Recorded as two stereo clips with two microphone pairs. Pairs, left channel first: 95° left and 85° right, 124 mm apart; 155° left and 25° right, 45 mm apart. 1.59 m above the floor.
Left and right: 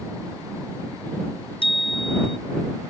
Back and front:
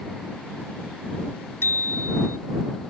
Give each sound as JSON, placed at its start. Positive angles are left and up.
{"t": 1.6, "sound": "a bicycle bell", "azimuth_deg": 135}